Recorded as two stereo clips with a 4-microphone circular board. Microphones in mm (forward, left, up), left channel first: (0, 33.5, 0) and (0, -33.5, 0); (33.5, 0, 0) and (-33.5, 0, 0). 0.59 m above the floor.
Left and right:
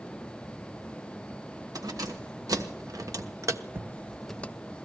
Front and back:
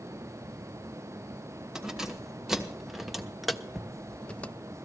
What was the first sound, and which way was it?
Keys jangling, 100° right.